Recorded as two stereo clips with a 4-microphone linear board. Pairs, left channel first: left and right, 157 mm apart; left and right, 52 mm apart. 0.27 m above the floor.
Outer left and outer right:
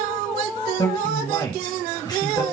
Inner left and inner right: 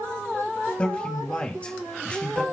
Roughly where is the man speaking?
Left.